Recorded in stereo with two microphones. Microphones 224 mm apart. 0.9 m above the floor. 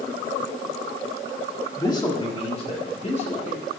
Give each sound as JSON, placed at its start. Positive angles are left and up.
{"t": 1.8, "sound": "a man speaking", "side_deg": 15, "distance_m": 1.2}